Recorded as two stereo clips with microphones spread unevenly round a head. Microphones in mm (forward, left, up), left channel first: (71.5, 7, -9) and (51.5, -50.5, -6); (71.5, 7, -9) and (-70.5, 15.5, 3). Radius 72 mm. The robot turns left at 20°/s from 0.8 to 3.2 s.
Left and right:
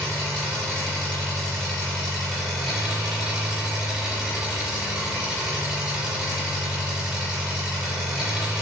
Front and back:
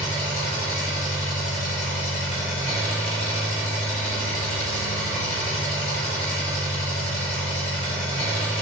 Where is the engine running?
15° left, 1.4 m; by 8.6 s 35° right, 1.4 m.